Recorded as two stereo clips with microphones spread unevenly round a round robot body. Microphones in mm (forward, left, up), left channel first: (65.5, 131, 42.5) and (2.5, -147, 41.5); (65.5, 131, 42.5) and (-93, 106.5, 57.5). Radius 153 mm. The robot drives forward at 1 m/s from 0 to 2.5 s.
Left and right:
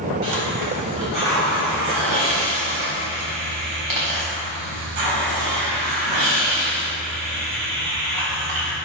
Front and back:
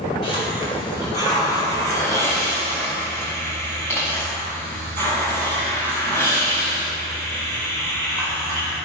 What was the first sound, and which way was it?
A hiss, 80° right.